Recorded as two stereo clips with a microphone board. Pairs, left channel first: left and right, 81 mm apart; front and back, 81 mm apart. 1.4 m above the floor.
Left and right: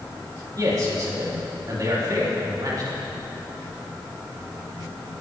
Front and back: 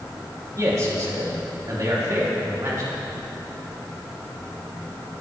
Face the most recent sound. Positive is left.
turn(degrees=-135)